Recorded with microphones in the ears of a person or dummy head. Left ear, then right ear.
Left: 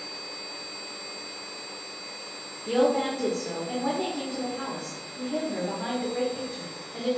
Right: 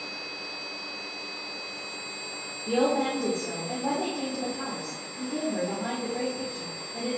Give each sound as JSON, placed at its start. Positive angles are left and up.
{"t": 2.7, "sound": "a woman speaking", "side_deg": 50, "distance_m": 1.7}